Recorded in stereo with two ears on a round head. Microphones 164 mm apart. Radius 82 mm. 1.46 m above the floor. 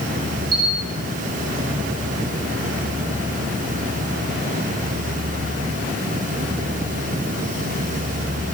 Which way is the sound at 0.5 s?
55° right (ahead or behind).